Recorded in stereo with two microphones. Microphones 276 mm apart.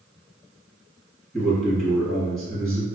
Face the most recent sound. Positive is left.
turn(degrees=0)  # may be behind; listen again after turning